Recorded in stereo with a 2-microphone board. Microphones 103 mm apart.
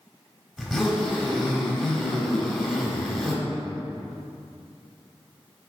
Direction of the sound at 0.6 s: Centre (ahead or behind).